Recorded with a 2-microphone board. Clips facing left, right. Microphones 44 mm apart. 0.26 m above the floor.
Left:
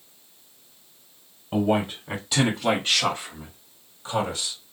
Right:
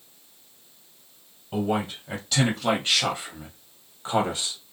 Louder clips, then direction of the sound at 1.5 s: Left 3 dB; 25° left (ahead or behind).